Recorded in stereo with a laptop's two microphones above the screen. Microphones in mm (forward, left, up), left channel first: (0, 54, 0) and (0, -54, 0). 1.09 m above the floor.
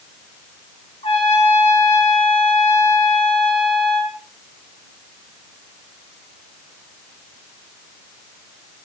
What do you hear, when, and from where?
1.0 s a trumpet: 60° left (ahead or behind), 1.5 m